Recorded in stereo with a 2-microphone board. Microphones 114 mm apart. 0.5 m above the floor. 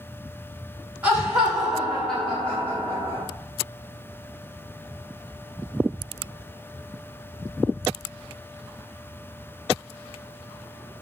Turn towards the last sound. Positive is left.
turn(degrees=25)  # may be behind; listen again after turning